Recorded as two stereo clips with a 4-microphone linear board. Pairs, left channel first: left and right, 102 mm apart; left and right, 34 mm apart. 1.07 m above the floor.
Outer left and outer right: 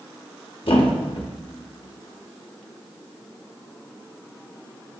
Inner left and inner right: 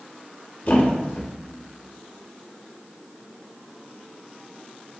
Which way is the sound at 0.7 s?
55° left (ahead or behind).